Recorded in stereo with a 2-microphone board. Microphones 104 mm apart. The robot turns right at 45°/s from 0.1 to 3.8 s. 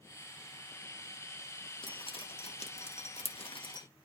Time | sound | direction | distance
1.8 | dripping | 45° left (ahead or behind) | 1.1 m